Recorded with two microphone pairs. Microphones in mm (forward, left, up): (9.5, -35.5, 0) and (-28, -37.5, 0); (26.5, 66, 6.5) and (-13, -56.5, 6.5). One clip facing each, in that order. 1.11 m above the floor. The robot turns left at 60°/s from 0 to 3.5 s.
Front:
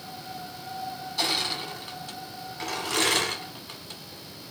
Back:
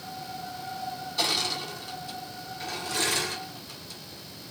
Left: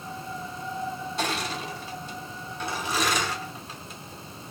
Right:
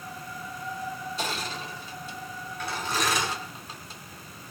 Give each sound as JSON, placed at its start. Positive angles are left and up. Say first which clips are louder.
{"t": 1.2, "sound": "crushing", "louder": "even, left 5 dB", "azimuth_deg": 95, "distance_m": 2.5}